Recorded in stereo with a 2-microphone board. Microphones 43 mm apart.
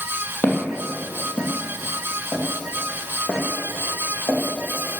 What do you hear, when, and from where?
0.4 s footsteps: 55° left (ahead or behind), 2.5 m; by 4.4 s 60° left (ahead or behind), 3.5 m